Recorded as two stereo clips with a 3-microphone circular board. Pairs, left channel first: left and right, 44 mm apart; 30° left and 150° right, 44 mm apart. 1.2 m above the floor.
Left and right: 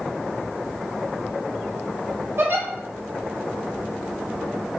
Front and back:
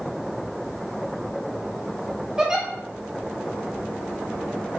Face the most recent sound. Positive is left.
turn(degrees=-75)